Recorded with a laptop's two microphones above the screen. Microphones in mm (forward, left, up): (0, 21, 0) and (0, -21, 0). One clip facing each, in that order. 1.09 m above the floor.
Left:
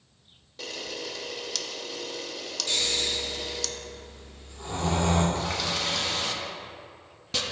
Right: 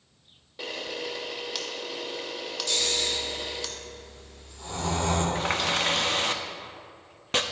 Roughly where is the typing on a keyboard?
I don't hear typing on a keyboard.